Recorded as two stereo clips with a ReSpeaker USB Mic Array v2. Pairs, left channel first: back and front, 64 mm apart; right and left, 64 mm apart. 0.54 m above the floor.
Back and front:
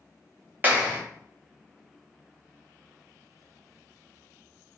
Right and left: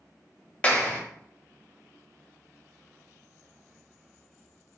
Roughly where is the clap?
Ahead right.